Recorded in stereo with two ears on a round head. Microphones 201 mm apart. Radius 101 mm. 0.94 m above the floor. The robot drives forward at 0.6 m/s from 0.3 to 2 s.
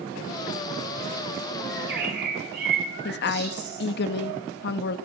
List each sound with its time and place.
1.7 s a bird: 50° right (ahead or behind), 9 m
3.0 s a woman speaking: 50° left (ahead or behind), 1.3 m